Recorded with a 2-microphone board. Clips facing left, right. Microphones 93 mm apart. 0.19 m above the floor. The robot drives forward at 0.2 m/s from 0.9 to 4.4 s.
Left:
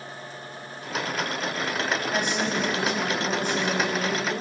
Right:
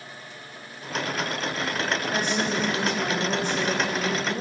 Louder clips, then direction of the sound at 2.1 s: Even; 40° right (ahead or behind).